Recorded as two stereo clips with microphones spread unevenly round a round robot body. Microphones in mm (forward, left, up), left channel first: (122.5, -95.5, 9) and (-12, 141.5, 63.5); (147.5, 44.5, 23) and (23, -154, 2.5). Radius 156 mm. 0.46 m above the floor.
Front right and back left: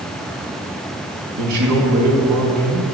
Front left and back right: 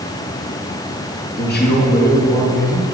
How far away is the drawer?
I don't hear a drawer.